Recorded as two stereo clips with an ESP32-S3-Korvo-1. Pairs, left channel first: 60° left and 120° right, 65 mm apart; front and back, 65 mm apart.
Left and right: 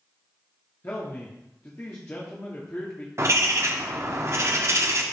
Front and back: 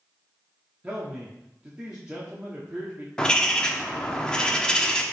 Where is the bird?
75° right, 0.8 m.